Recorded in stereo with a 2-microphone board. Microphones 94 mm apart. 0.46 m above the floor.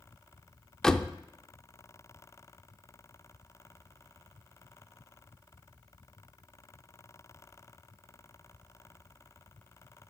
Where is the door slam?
5° left (ahead or behind), 0.5 m.